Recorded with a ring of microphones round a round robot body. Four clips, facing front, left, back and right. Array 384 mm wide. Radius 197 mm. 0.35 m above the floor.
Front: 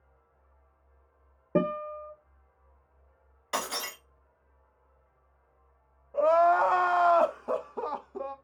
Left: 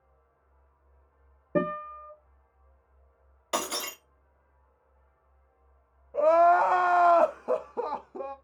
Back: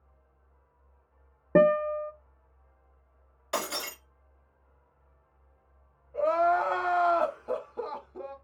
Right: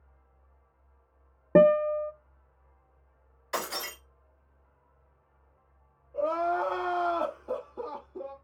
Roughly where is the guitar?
Behind right.